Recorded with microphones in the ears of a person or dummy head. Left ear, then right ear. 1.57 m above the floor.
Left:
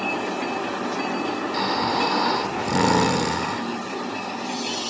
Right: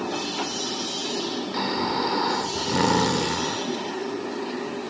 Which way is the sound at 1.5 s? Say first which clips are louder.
Left 3 dB; centre (ahead or behind).